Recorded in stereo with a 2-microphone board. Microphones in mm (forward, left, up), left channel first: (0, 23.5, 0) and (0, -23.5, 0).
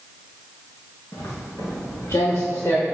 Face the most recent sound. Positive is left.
turn(degrees=75)  # may be behind; listen again after turning